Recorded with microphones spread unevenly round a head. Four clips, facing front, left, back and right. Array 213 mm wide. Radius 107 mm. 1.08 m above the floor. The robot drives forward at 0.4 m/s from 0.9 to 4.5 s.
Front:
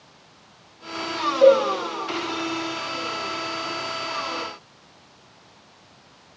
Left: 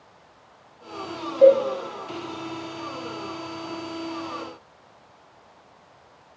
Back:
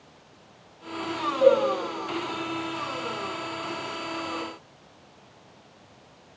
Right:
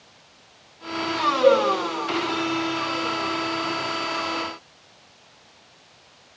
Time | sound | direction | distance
1.4 | a cowbell | 55° left | 5 m